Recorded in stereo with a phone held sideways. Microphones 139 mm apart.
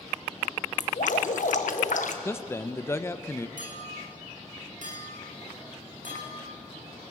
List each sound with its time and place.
0.8 s dripping: 75° left (ahead or behind), 1.5 m
2.2 s a man speaking: 20° left (ahead or behind), 0.9 m
3.6 s a clink: 80° right, 5.5 m